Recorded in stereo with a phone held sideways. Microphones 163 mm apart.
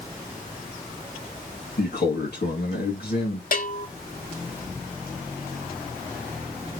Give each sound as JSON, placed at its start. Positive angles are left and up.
{"t": 1.8, "sound": "a man speaking", "side_deg": 80, "distance_m": 2.0}
{"t": 3.5, "sound": "a bell", "side_deg": 60, "distance_m": 0.6}